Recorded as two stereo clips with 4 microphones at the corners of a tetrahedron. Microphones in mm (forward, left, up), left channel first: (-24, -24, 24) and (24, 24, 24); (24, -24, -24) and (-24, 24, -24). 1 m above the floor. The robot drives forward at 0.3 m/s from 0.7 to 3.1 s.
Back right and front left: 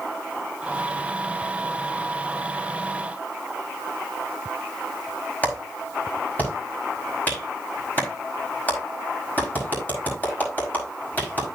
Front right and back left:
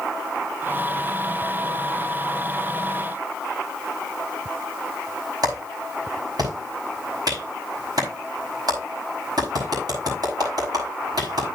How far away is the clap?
About 5 m.